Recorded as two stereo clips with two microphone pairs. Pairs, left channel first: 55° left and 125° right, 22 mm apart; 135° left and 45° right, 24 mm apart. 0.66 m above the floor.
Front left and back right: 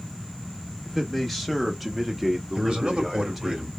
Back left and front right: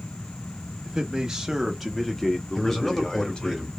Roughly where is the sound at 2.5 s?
Behind right.